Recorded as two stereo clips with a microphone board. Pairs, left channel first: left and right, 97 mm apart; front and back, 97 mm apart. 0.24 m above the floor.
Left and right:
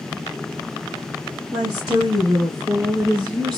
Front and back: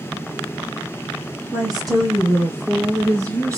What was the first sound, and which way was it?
A woman speaking, 135° right.